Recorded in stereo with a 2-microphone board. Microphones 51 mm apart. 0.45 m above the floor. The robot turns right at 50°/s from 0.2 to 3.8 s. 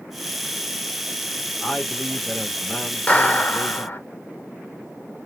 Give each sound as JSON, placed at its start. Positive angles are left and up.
{"t": 1.6, "sound": "a man speaking", "side_deg": 20, "distance_m": 1.2}
{"t": 3.1, "sound": "a clap", "azimuth_deg": 35, "distance_m": 1.3}